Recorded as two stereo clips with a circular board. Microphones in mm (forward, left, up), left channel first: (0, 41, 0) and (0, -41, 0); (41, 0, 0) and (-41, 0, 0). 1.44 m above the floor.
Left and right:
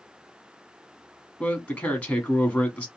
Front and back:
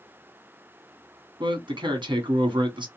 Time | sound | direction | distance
1.4 | a man speaking | 160° left | 1.0 m